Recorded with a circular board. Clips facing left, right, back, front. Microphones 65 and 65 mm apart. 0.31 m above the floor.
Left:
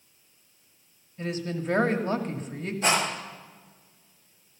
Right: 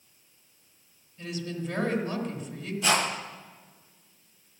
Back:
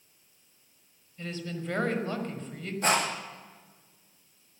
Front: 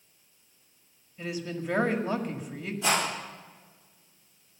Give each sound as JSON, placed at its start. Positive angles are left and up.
{"t": 1.2, "sound": "a woman speaking", "azimuth_deg": 70, "distance_m": 1.6}
{"t": 2.8, "sound": "a rattle", "azimuth_deg": 145, "distance_m": 8.5}